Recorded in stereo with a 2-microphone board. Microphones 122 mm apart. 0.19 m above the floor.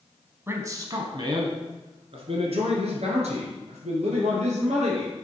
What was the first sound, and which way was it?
A man speaking, 20° right (ahead or behind).